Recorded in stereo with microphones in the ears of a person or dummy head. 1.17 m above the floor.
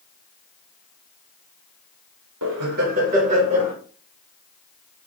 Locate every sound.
2.4 s laughter: 65° right (ahead or behind), 0.6 m; by 3.8 s 35° right (ahead or behind), 1.6 m